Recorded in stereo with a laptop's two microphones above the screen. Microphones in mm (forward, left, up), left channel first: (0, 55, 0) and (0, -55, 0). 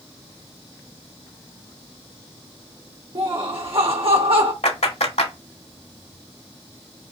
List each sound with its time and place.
3.1 s laughter: 55° right (ahead or behind), 1.6 m
4.6 s a clap: 75° left (ahead or behind), 2 m